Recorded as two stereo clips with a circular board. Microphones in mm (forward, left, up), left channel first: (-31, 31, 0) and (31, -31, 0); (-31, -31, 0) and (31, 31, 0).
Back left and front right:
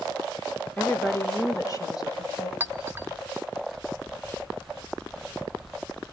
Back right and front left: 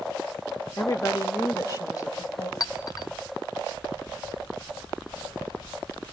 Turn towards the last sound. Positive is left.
turn(degrees=-105)